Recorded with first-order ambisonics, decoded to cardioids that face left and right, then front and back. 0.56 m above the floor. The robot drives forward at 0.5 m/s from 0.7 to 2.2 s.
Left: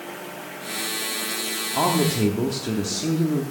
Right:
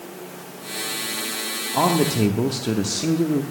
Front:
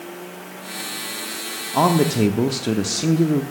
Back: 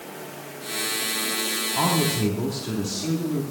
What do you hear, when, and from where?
1.7 s a man speaking: 10° right, 0.9 m; by 3.4 s 15° right, 0.7 m